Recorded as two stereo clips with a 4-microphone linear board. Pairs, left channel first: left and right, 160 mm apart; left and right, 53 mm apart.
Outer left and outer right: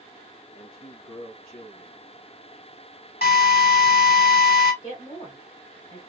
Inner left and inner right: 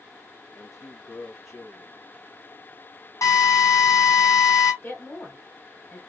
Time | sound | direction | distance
0.5 | a man speaking | 75° left (ahead or behind) | 1.6 m
3.2 | a drill | 90° left | 2.5 m
4.8 | a woman speaking | 45° left (ahead or behind) | 2 m